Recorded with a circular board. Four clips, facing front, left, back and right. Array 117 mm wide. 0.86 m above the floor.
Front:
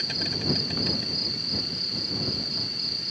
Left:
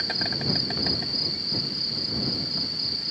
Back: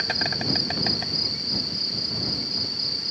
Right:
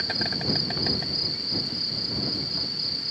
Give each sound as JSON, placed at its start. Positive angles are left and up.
{"t": 0.0, "sound": "an insect", "azimuth_deg": 180}